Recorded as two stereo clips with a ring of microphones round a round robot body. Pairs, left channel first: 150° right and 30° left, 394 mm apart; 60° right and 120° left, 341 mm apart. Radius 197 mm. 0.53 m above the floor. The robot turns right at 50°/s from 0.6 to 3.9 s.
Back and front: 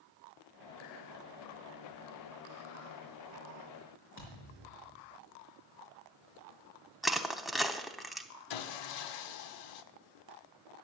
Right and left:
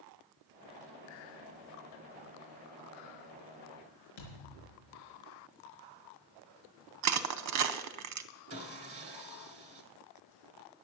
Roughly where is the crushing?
Behind left.